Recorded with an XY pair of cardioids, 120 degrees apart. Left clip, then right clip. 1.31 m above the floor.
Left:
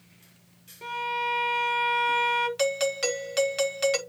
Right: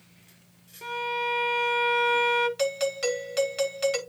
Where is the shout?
I don't hear a shout.